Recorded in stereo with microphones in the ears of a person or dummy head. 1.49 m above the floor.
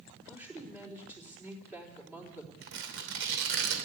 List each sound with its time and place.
0.3 s a woman speaking: 15° right (ahead or behind), 3.5 m
2.6 s tearing paper: 65° right (ahead or behind), 2.5 m